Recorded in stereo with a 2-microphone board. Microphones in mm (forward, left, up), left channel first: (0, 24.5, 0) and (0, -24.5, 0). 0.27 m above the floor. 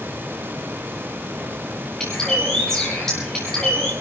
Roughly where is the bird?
Centre.